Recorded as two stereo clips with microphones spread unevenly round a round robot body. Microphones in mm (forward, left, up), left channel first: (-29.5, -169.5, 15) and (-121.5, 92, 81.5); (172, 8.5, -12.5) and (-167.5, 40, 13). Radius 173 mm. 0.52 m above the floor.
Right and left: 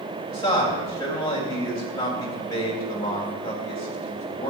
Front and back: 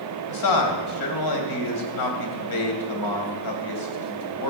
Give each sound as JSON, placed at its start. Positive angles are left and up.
{"t": 0.3, "sound": "a man speaking", "azimuth_deg": 5, "distance_m": 3.0}